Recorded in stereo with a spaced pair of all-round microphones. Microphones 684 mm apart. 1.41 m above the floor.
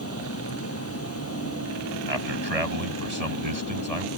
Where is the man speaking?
55° right (ahead or behind).